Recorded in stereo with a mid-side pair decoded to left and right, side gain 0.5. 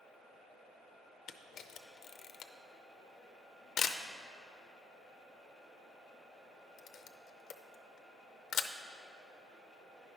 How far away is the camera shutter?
About 0.5 m.